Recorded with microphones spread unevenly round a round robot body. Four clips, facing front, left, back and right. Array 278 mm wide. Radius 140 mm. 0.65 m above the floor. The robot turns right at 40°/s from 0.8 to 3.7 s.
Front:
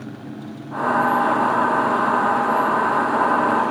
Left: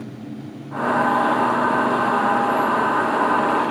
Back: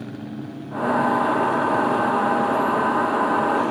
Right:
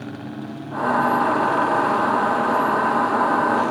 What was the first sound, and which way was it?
Only background noise.